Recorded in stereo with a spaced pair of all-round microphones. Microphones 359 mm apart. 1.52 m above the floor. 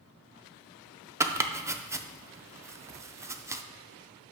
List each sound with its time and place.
1.2 s chopping: 10° right (ahead or behind), 0.5 m